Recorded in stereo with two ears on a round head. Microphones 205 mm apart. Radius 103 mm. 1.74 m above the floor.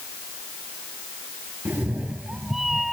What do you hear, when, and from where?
1.6 s a cat meowing: 5° right (ahead or behind); by 2.9 s centre (ahead or behind)